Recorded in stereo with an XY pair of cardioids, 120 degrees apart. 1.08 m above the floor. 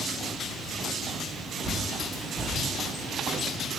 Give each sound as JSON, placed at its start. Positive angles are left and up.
{"t": 1.6, "sound": "a bird", "azimuth_deg": -10, "distance_m": 1.4}